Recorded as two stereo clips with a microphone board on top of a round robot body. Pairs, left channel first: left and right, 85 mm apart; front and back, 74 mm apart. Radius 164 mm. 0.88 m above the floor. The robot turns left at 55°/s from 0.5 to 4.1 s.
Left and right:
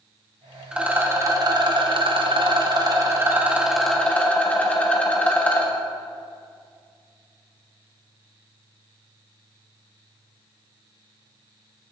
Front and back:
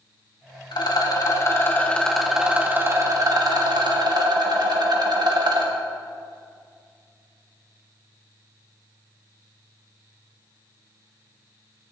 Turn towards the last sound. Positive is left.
turn(degrees=165)